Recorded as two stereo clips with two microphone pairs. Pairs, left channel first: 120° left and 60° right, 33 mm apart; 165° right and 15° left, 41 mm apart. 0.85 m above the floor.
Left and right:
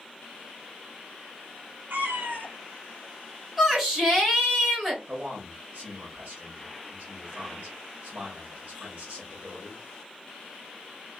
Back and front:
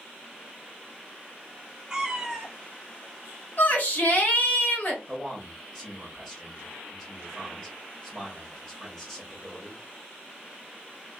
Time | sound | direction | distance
1.9 | a cat meowing | 60° right | 0.7 m
3.6 | a shout | 140° right | 1.4 m
5.1 | a man speaking | 80° right | 1.2 m